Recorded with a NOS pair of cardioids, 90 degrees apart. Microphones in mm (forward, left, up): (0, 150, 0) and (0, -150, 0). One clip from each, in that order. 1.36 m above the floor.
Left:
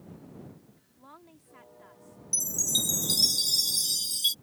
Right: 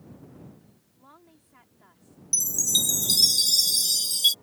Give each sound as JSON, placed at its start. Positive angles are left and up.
{"t": 1.0, "sound": "a woman speaking", "azimuth_deg": 10}
{"t": 2.3, "sound": "a chime", "azimuth_deg": -20}